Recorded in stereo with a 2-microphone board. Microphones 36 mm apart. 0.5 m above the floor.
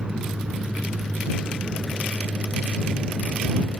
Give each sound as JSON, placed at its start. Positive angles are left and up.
{"t": 0.0, "sound": "a vehicle", "side_deg": -30}